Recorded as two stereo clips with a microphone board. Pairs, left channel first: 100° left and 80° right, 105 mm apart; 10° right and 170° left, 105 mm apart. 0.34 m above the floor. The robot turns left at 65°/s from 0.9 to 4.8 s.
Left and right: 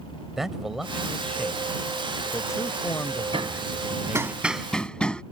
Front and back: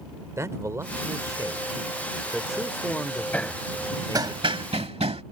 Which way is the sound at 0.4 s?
165° right.